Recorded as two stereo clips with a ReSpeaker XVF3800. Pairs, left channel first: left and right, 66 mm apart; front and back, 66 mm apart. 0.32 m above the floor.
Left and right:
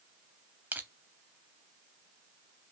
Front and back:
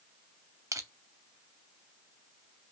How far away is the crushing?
About 0.6 m.